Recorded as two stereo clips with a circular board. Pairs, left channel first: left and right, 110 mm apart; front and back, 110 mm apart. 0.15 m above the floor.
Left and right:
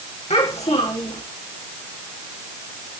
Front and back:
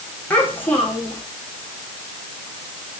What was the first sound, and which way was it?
A child speaking, 75° left.